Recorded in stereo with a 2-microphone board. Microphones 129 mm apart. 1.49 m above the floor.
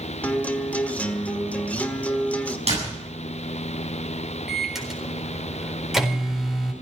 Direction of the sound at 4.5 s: 5° right (ahead or behind).